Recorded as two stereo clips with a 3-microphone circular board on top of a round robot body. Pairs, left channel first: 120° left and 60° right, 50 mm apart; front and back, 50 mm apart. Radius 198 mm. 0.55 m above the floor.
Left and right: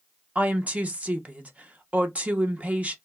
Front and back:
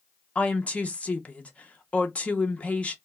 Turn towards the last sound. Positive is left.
turn(degrees=-35)